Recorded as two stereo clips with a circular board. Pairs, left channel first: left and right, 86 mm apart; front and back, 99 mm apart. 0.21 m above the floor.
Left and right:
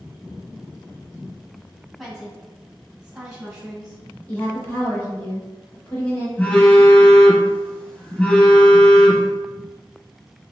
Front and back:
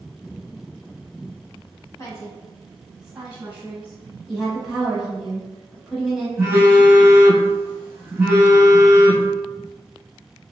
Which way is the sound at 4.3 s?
90° left.